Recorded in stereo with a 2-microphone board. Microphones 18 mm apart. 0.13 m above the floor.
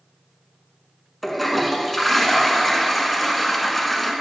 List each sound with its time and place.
1.2 s a toilet flushing: 5° left (ahead or behind), 1.3 m